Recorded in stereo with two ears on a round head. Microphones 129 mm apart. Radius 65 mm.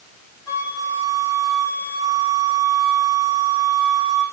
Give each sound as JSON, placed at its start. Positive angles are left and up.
{"t": 0.5, "sound": "a flute", "side_deg": 25, "distance_m": 4.5}